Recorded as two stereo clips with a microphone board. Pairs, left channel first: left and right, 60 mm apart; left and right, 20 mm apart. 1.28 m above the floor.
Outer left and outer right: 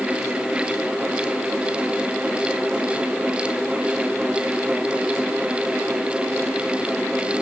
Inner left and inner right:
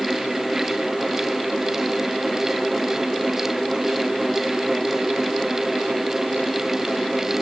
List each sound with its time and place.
Only background noise.